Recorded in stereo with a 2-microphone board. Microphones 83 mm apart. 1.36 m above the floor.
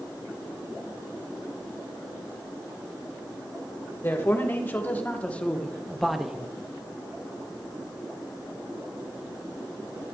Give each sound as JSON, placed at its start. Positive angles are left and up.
{"t": 4.0, "sound": "a man speaking", "side_deg": 30, "distance_m": 1.7}